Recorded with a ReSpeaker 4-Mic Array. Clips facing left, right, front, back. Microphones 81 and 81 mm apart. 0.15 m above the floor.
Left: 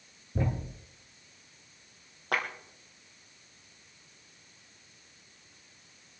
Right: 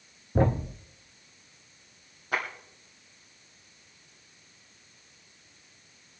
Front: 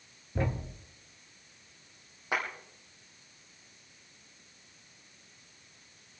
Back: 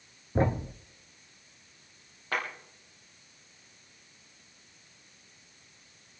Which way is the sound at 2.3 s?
75° left.